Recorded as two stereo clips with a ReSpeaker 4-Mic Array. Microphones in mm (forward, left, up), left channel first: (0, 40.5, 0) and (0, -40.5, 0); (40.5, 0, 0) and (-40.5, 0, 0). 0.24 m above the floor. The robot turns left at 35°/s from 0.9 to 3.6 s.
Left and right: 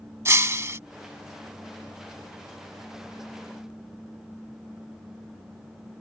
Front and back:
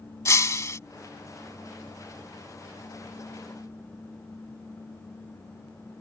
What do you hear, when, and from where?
0.2 s breaking glass: 45° right